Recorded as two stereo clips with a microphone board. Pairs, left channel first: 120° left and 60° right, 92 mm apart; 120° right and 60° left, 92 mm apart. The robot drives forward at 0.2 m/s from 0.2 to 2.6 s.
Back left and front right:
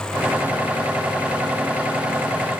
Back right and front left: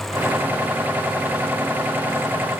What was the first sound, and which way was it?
Only background noise.